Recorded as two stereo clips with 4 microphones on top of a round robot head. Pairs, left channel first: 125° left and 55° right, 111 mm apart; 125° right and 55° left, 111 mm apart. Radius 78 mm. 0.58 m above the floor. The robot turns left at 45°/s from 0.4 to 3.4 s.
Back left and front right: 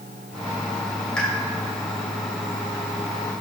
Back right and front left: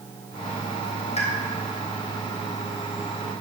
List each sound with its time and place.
1.2 s a pop: 150° right, 3 m; by 1.3 s 155° right, 3 m